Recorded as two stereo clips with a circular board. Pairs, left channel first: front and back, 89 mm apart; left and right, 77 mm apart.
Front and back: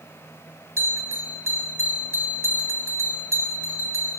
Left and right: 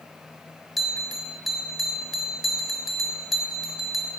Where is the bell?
175° right, 0.5 m.